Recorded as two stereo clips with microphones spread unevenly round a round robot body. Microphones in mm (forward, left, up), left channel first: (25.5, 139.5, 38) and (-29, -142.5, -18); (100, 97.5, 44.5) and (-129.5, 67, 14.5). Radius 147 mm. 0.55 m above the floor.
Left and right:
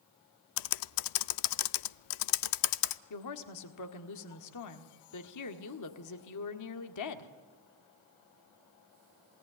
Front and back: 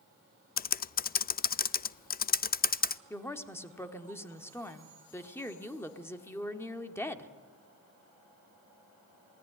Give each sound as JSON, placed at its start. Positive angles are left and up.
{"t": 0.6, "sound": "typing on a keyboard", "azimuth_deg": 65, "distance_m": 0.5}
{"t": 3.1, "sound": "a woman speaking", "azimuth_deg": 90, "distance_m": 1.8}